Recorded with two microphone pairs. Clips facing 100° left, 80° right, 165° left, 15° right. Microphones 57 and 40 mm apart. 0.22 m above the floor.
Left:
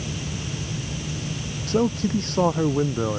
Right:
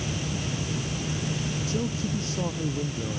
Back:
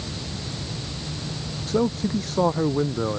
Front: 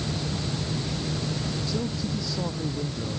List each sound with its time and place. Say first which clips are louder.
1.7 s a man speaking: left 11 dB, back 12 dB; 125° left